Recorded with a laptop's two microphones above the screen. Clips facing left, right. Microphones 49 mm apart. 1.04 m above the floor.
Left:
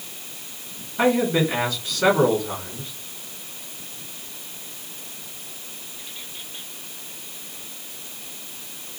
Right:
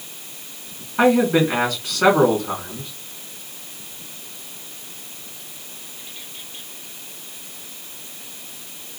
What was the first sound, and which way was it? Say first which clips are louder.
A man speaking: right 4 dB; 75° right (ahead or behind).